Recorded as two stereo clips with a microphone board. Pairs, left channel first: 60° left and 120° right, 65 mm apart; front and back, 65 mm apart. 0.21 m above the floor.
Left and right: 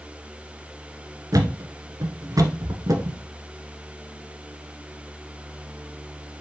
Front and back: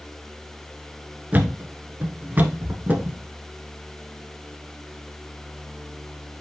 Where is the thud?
120° right, 1.0 m.